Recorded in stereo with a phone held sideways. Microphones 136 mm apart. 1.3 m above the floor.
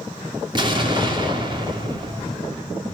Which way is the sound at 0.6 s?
35° right (ahead or behind).